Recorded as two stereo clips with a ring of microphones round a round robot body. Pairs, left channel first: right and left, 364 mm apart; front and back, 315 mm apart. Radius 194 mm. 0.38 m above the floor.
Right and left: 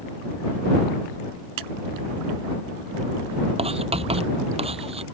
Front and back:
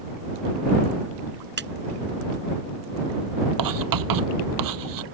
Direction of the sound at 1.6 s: 125° left.